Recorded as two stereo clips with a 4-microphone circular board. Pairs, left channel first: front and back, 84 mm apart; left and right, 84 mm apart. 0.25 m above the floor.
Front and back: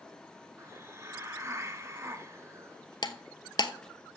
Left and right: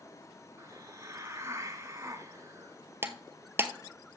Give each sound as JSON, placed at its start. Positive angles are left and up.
{"t": 0.6, "sound": "a hiss", "azimuth_deg": -135, "distance_m": 1.3}
{"t": 3.0, "sound": "breaking glass", "azimuth_deg": -30, "distance_m": 0.8}